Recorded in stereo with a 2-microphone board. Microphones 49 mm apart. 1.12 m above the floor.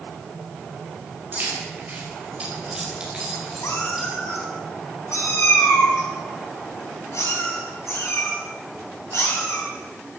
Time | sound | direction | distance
1.3 | keys jangling | 40° right (ahead or behind) | 5 m
3.6 | a cat meowing | 75° left (ahead or behind) | 4 m